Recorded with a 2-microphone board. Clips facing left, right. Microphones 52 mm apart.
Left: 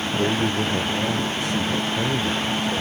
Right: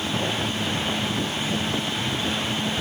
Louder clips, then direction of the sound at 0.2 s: Left 4 dB; 75° left (ahead or behind).